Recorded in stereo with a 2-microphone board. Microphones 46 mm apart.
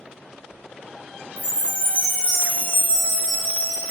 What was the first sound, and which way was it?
A chime, 30° right (ahead or behind).